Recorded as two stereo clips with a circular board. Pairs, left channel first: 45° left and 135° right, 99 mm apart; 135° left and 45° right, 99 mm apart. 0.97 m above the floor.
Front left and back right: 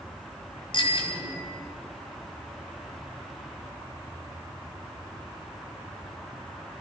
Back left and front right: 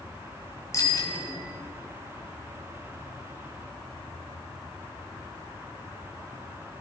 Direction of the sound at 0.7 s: 75° left.